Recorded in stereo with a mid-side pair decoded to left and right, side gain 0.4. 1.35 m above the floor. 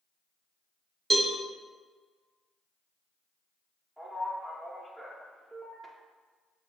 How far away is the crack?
I don't hear a crack.